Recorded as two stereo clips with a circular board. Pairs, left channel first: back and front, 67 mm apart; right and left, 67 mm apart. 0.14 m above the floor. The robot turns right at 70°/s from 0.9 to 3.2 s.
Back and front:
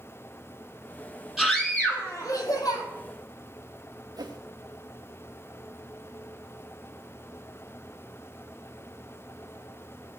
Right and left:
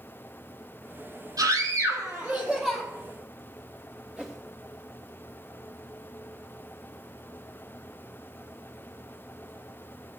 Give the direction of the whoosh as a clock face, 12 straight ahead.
12 o'clock.